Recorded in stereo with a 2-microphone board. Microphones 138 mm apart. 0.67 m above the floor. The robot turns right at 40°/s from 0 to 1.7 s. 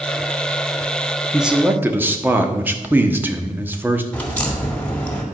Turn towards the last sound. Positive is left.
turn(degrees=10)  # may be behind; listen again after turning